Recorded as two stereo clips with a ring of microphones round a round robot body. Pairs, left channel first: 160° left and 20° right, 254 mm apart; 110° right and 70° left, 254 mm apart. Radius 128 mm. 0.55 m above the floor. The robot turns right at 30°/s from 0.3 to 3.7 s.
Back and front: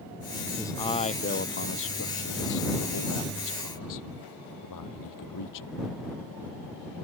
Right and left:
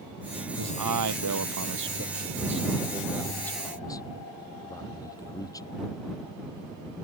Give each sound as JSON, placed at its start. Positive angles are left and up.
{"t": 0.6, "sound": "a man speaking", "azimuth_deg": 75}